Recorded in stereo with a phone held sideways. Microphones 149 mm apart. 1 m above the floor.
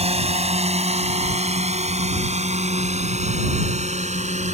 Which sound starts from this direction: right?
A drone, at 0.0 s.